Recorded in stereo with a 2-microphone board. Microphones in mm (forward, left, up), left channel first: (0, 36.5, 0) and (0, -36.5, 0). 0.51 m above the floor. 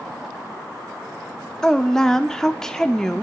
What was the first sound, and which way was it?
A woman speaking, 5° left (ahead or behind).